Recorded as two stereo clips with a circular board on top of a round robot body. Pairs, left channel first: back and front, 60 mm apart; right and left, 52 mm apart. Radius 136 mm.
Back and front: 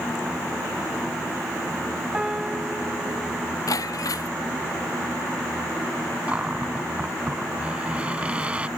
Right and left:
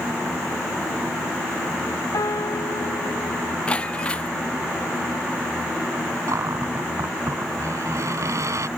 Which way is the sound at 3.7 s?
160° right.